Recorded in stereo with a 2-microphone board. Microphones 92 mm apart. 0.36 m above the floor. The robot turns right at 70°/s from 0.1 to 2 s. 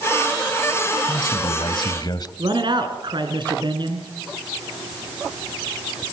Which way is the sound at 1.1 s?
60° left.